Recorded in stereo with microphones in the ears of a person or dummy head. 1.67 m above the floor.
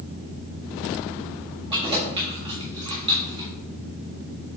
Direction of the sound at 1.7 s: 35° right (ahead or behind).